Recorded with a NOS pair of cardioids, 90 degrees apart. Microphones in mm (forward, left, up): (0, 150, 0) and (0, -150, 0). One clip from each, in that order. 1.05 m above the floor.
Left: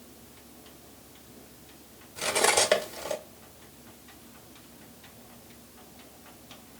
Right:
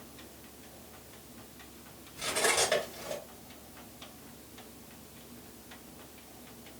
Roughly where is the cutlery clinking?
Ahead left.